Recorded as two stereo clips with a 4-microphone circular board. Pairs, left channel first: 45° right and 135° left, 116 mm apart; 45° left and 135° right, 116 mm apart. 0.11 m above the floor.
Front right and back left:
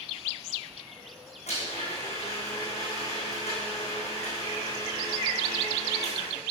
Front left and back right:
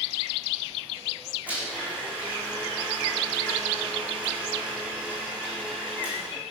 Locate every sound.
1.5 s a blender: 60° right, 5 m